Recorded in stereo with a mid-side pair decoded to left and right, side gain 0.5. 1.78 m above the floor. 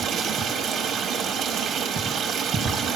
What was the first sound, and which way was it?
Running water, 65° right.